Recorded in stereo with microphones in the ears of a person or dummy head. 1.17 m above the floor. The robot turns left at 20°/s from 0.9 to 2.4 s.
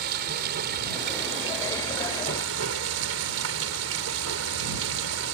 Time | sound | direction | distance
0.0 | running water | 55° right | ?